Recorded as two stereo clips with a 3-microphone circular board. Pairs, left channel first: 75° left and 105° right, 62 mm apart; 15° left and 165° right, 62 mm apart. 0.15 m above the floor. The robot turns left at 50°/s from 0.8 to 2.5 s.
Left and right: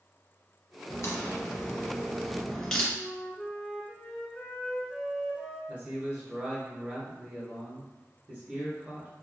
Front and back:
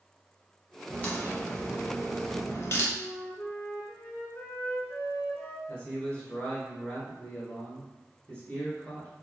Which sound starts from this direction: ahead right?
A man speaking, at 5.7 s.